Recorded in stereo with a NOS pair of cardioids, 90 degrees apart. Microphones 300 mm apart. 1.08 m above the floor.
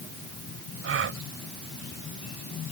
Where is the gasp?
45° right.